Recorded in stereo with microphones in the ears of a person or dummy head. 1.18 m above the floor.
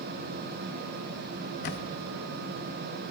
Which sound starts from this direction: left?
A camera shutter, at 1.6 s.